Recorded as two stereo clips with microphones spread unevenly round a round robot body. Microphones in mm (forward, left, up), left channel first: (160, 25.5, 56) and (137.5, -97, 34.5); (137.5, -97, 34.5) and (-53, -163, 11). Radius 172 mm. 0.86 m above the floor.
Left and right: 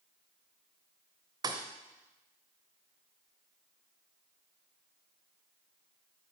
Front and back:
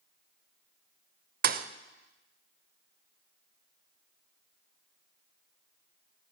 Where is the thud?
165° right, 0.6 m.